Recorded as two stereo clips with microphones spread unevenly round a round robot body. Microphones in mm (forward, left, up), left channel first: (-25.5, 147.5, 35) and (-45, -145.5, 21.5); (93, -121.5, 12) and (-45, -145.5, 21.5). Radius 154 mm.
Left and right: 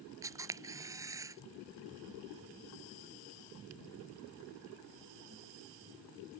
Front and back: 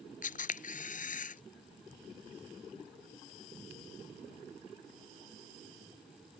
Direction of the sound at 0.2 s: 15° right.